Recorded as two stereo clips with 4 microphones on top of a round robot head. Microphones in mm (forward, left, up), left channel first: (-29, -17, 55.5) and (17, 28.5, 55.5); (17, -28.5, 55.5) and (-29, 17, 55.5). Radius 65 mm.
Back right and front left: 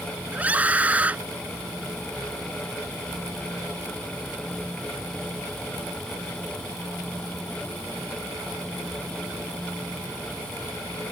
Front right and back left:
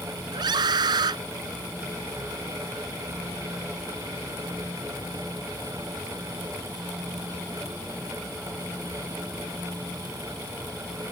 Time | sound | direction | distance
0.3 | a scream | 115° left | ?